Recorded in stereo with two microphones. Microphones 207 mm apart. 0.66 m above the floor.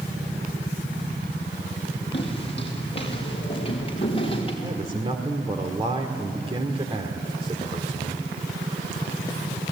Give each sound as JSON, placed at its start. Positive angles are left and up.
{"t": 2.1, "sound": "footsteps", "side_deg": 25, "distance_m": 7.0}
{"t": 4.6, "sound": "a man speaking", "side_deg": -30, "distance_m": 2.0}